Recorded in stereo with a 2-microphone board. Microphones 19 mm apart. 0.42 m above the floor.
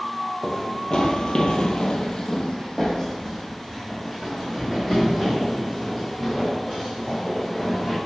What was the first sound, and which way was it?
Running footsteps, 30° left (ahead or behind).